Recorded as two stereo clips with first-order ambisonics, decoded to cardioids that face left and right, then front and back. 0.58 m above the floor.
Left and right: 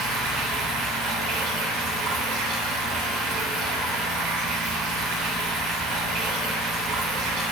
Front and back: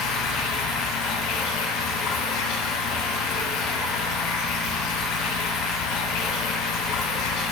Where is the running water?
35° right, 1.1 m.